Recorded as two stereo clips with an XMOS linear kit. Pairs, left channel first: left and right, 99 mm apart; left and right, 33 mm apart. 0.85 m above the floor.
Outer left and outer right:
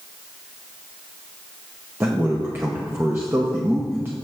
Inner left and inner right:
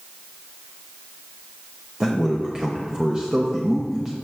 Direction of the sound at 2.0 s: 25° right (ahead or behind).